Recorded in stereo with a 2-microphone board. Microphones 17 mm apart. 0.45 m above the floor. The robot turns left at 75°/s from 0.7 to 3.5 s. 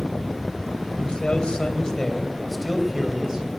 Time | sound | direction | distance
1.0 | a man speaking | 120° left | 2.5 m